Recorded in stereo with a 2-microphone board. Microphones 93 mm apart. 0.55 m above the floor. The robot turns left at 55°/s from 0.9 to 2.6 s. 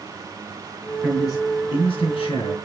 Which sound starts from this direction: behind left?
A man speaking, at 1.0 s.